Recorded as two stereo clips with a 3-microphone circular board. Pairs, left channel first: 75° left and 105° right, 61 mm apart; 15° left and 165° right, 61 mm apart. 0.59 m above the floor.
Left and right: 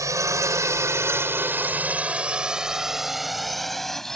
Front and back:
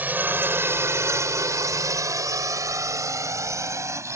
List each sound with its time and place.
0.0 s a drone: 110° right; by 4.2 s 160° left